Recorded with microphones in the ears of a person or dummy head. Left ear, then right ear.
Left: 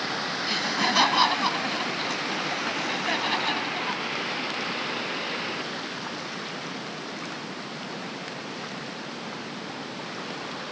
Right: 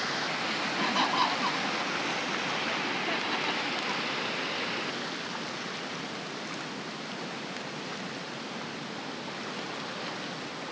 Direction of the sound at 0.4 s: 30° left (ahead or behind).